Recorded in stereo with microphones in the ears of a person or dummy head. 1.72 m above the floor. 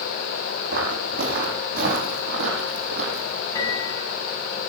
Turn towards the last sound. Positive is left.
turn(degrees=25)  # may be behind; listen again after turning